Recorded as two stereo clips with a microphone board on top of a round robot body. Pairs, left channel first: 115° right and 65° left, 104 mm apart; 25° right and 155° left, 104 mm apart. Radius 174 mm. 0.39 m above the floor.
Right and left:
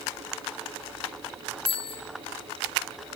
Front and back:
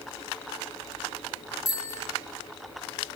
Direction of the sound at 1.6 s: 85° right.